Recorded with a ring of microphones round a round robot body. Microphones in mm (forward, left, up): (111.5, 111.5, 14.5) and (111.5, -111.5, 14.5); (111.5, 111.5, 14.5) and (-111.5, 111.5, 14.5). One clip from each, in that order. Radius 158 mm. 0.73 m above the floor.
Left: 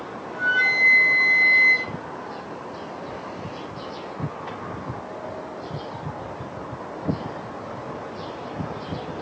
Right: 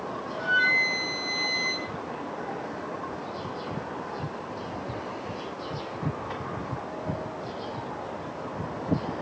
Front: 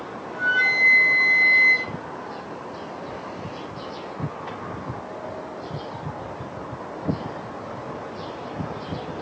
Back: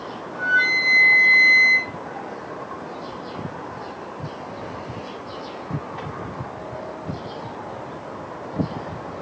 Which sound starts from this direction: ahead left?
A flute, at 0.3 s.